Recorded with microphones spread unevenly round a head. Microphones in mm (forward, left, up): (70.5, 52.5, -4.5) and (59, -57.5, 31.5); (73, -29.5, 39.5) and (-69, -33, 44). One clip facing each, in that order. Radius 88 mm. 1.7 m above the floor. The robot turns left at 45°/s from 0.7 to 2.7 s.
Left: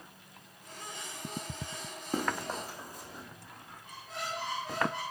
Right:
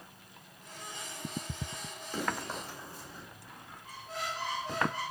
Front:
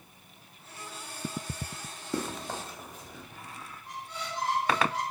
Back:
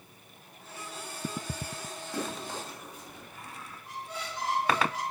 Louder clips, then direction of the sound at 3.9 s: Right 1 dB, even; 145° left.